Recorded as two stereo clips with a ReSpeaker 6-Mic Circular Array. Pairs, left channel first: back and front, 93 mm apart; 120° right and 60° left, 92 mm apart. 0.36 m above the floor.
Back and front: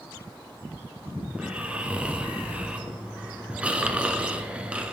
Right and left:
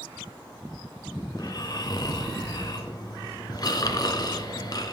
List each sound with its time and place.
1.3 s snoring: 75° right, 1.0 m